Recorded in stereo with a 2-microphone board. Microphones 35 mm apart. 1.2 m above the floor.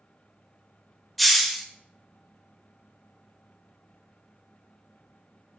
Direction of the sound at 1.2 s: Centre (ahead or behind).